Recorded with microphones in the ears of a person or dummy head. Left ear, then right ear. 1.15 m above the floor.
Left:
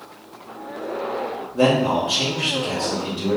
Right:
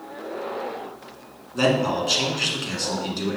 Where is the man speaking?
75° right (ahead or behind), 1.9 m.